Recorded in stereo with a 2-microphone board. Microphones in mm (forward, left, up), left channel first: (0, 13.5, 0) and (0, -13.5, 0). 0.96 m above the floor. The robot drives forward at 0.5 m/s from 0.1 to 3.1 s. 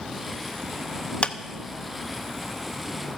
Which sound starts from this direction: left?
A clap, at 1.2 s.